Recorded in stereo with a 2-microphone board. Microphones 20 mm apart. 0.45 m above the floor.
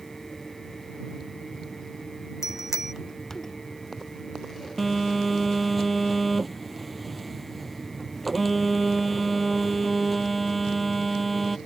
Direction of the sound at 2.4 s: 20° right (ahead or behind).